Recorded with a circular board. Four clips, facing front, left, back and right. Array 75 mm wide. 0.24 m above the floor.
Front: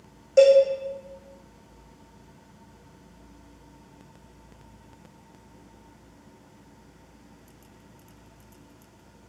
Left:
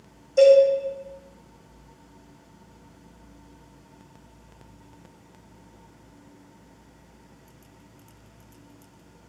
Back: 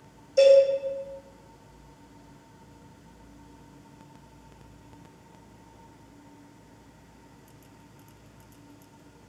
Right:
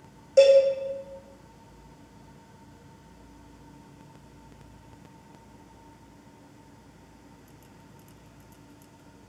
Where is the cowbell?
35° right, 3 m.